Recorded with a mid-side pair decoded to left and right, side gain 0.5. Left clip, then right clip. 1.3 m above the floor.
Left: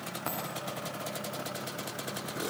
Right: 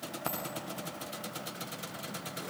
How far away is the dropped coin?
About 6 m.